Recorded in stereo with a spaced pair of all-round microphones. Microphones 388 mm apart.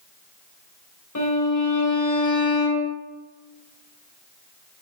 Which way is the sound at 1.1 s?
45° left (ahead or behind).